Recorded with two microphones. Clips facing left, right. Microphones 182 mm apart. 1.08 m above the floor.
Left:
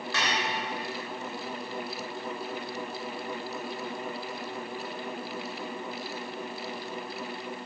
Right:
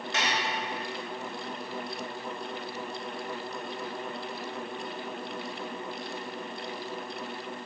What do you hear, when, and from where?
0.1 s dishes clattering: 20° right (ahead or behind), 3.5 m